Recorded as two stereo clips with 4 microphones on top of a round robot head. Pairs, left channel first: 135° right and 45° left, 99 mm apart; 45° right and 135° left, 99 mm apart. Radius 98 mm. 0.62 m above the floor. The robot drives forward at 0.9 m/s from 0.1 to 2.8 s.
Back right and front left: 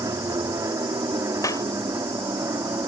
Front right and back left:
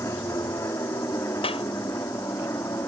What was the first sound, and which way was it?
An aircraft, 5° left.